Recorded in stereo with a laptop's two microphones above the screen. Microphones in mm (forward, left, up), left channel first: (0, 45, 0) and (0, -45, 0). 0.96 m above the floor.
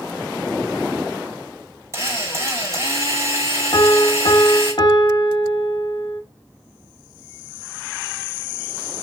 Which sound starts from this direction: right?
A drill, at 1.9 s.